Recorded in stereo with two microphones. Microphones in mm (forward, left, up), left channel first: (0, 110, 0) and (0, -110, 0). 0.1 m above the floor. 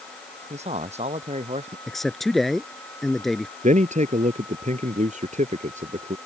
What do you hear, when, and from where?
0.5 s a man speaking: 30° right (ahead or behind)
1.9 s a man speaking: centre (ahead or behind)
3.6 s a man speaking: 35° right (ahead or behind)